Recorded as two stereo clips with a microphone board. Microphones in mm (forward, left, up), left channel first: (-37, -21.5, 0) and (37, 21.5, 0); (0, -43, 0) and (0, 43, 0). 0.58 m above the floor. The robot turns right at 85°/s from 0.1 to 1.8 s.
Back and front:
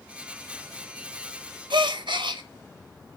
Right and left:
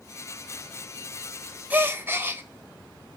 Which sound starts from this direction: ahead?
A gasp, at 1.7 s.